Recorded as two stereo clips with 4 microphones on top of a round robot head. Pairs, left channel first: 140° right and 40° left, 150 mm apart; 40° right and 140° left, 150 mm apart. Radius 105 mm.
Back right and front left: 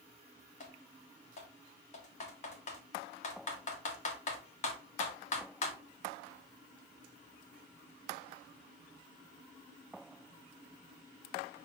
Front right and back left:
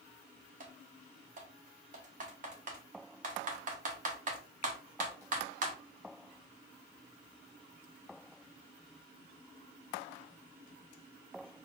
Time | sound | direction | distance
0.6 | typing on a keyboard | straight behind | 1.1 m